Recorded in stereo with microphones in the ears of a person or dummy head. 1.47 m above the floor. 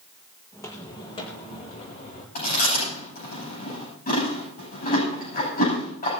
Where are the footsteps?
15° left (ahead or behind), 4.5 m; by 2.2 s 45° left (ahead or behind), 5 m.